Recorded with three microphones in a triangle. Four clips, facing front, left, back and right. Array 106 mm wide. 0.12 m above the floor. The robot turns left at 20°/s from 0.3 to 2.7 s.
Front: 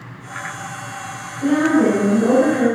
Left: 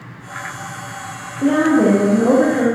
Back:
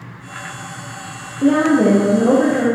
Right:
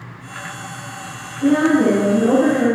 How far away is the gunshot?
No gunshot in this recording.